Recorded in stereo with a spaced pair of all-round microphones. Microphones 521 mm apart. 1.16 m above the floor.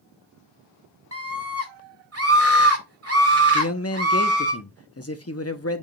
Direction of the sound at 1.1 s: 25° right (ahead or behind).